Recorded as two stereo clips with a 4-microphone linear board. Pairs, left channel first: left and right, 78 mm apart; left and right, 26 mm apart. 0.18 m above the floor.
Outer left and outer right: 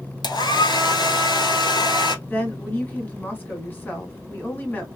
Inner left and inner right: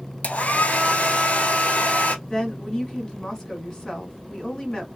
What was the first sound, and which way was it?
A hair dryer, 70° left (ahead or behind).